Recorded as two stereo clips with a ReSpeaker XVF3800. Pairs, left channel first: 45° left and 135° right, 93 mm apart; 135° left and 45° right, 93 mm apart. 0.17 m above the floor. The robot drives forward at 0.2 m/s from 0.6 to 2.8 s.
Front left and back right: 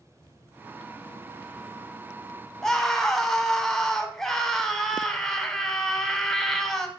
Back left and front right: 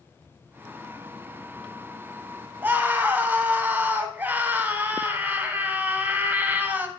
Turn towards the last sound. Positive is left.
turn(degrees=-30)